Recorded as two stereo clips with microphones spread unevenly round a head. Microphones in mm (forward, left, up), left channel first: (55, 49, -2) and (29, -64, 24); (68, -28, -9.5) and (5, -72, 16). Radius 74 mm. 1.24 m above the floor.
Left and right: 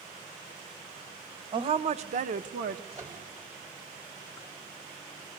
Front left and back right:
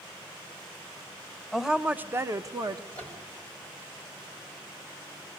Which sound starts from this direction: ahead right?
A woman speaking, at 1.5 s.